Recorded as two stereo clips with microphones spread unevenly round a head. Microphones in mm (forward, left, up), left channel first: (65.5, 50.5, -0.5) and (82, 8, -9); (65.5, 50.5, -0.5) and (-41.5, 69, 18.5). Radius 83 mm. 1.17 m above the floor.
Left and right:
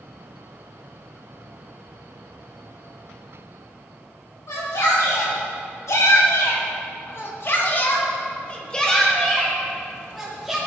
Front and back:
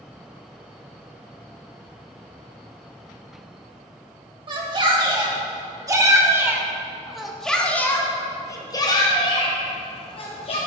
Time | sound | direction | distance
4.5 | a shout | 125° left | 3 m